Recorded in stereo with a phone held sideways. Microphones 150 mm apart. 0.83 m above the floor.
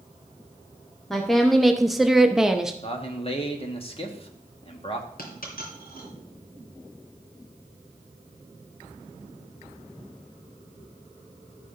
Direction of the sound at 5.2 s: 80° left.